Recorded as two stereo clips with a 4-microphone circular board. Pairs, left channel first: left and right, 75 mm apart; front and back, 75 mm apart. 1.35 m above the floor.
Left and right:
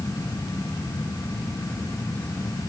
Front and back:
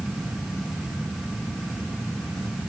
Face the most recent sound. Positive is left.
No sound to turn to.